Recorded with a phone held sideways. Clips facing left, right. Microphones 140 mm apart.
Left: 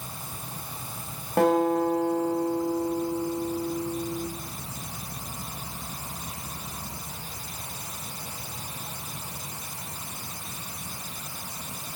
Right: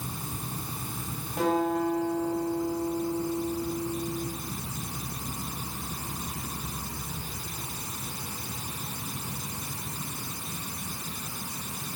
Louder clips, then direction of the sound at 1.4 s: Left 5 dB; 70° left (ahead or behind).